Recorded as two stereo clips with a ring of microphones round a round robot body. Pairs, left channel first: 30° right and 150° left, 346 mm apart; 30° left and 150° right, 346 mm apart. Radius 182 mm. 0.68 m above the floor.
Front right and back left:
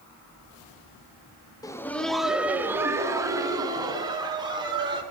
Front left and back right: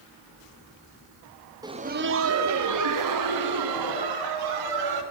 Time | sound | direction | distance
1.6 | laughter | 90° right | 0.5 m